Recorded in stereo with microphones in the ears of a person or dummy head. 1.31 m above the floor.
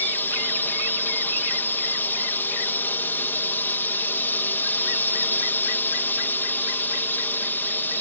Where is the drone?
15° left (ahead or behind).